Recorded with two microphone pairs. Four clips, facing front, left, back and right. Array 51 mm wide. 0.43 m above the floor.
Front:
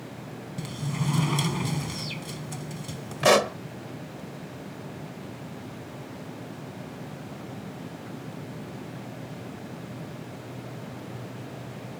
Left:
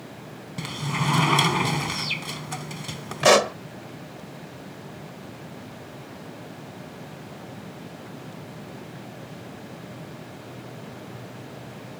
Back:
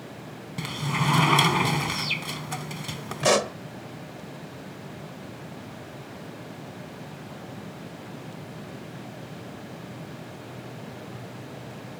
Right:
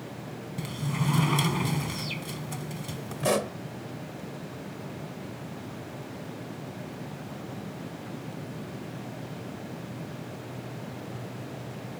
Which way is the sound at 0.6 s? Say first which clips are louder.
Left 4 dB, back 5 dB; 145° left.